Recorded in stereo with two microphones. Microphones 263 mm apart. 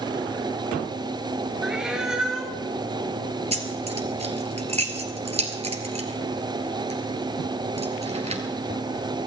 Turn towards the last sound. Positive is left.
turn(degrees=-25)  # may be behind; listen again after turning